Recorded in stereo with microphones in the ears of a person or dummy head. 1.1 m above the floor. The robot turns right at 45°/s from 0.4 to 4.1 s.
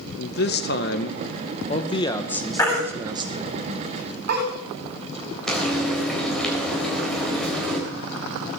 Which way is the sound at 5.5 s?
Centre (ahead or behind).